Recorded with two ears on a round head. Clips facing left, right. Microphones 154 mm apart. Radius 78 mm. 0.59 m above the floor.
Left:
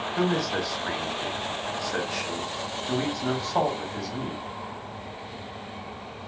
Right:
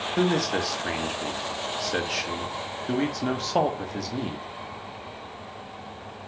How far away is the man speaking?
About 0.6 m.